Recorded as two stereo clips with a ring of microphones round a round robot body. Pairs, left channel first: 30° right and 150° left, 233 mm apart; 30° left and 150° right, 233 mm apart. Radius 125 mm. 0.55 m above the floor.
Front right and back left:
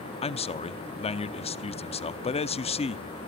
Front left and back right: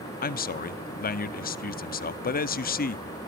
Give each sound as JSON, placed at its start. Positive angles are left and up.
{"t": 0.2, "sound": "a man speaking", "azimuth_deg": 15, "distance_m": 0.7}